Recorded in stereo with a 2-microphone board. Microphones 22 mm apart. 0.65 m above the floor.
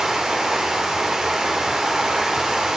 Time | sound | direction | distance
0.0 | running water | 20° right (ahead or behind) | 1.2 m